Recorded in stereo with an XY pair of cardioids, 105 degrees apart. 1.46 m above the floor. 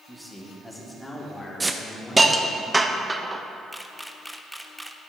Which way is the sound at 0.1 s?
Straight ahead.